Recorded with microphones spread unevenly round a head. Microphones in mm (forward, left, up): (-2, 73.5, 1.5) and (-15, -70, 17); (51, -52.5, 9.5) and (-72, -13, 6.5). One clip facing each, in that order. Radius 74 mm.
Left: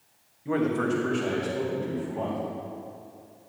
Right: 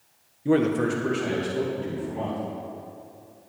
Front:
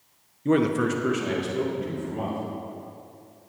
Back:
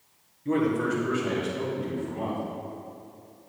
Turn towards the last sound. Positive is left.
turn(degrees=0)